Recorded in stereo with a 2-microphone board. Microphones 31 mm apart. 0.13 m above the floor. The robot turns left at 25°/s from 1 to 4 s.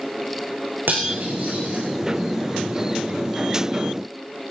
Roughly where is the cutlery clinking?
Right.